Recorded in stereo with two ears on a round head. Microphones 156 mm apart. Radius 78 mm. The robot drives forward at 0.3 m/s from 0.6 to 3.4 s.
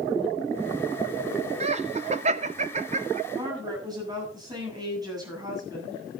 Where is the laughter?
35° right (ahead or behind), 1.1 m; by 3.2 s 40° right (ahead or behind), 1.1 m.